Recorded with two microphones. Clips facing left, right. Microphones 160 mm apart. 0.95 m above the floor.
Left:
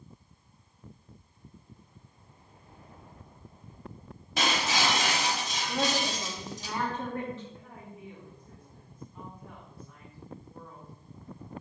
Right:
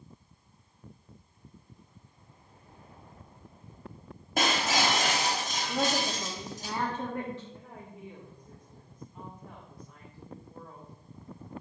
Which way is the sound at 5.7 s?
15° right (ahead or behind).